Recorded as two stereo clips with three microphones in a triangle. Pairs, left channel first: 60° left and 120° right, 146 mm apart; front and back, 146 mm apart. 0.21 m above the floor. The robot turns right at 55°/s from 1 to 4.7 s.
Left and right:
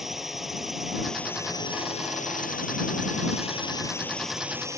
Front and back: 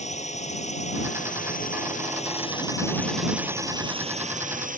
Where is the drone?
30° right; by 4.8 s 170° left.